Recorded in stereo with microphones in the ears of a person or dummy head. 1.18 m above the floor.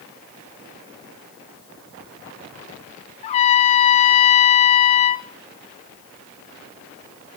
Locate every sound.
3.2 s a trumpet: 35° left (ahead or behind), 0.5 m